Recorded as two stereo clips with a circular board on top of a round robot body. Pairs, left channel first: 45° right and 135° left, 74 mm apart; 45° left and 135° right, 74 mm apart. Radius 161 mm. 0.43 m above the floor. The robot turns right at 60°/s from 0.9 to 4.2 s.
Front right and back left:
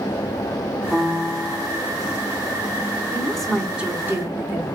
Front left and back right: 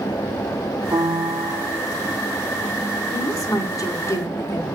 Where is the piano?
125° right, 1.4 m; by 1.8 s 70° right, 1.4 m.